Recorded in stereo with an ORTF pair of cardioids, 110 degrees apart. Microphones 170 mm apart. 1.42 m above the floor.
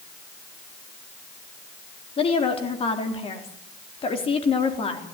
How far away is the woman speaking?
About 3.5 m.